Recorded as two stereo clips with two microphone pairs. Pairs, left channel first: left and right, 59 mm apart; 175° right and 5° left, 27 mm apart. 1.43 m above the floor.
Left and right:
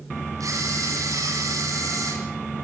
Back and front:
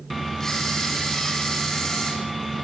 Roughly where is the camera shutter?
Right.